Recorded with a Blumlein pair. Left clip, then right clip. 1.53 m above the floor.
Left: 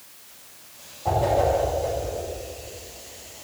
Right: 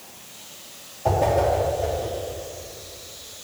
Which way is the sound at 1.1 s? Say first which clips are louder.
Right 1 dB; 65° right.